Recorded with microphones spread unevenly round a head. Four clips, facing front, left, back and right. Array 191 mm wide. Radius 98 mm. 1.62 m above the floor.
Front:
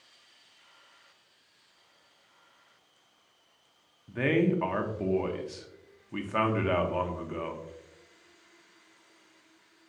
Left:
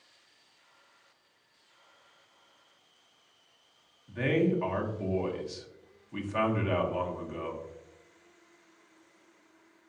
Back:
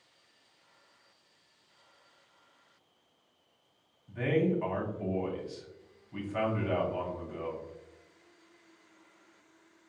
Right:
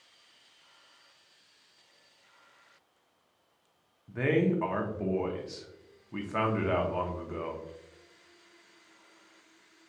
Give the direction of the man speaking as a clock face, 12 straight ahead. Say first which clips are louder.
Even, front 3 dB; 1 o'clock.